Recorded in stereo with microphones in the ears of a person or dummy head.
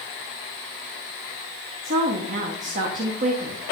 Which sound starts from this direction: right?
A woman speaking, at 1.8 s.